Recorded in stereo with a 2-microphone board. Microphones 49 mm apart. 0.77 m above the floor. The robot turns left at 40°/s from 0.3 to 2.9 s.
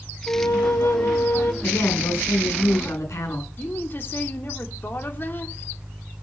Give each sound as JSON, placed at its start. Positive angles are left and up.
{"t": 0.3, "sound": "a flute", "azimuth_deg": 100, "distance_m": 2.5}
{"t": 1.6, "sound": "a woman speaking", "azimuth_deg": 120, "distance_m": 7.5}
{"t": 3.6, "sound": "a woman speaking", "side_deg": 45, "distance_m": 2.5}